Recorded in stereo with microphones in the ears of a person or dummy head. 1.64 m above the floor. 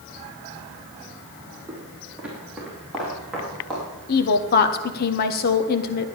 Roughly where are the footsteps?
Centre.